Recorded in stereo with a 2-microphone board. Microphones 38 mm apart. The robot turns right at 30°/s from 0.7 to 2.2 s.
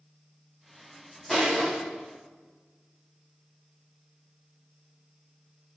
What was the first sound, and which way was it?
Crushing, 10° left (ahead or behind).